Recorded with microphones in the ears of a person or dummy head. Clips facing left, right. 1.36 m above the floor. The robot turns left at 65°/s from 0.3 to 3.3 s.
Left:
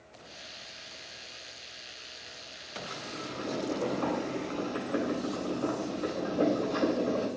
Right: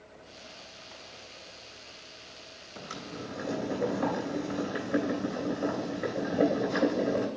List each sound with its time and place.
2.9 s boiling: 45° right (ahead or behind), 3 m; by 7.3 s 20° right (ahead or behind), 3 m